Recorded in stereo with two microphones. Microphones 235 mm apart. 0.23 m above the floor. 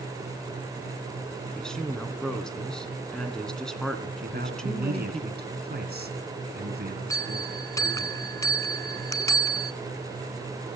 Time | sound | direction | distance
1.6 | a woman speaking | 5° left (ahead or behind) | 2.5 m
4.2 | a man speaking | 45° right (ahead or behind) | 3 m
7.1 | a bell | 15° left (ahead or behind) | 0.6 m